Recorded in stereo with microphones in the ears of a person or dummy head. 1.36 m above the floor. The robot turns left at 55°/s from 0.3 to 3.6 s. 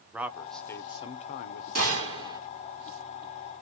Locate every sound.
0.1 s a man speaking: 170° right, 0.6 m; by 1.6 s 115° left, 0.6 m
1.8 s a gunshot: 125° right, 1.1 m; by 2.4 s 160° right, 1.1 m